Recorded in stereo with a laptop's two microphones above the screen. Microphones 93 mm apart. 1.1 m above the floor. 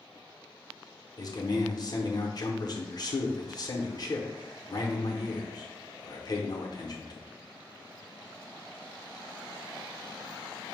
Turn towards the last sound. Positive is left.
turn(degrees=45)  # may be behind; listen again after turning